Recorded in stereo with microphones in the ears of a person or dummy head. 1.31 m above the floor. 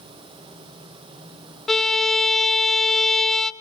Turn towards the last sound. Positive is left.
turn(degrees=5)  # may be behind; listen again after turning